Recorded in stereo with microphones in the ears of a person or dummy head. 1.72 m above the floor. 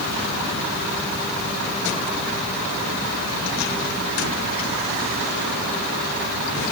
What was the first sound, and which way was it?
Only background noise.